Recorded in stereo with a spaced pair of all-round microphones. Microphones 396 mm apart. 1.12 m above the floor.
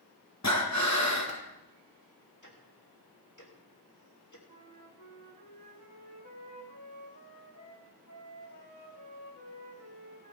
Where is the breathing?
45° left (ahead or behind), 1.5 m.